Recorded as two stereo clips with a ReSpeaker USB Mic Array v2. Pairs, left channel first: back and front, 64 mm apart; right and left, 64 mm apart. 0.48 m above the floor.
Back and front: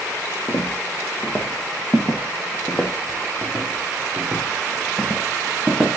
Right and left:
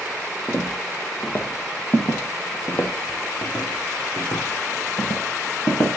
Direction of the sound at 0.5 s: 150° right.